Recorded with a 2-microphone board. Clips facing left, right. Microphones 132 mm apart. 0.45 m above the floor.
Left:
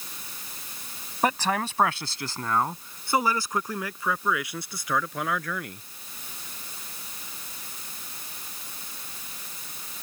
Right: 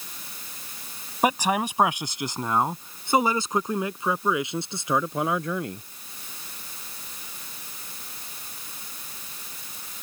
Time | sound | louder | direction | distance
1.2 | a man speaking | right 2 dB | 10° right (ahead or behind) | ?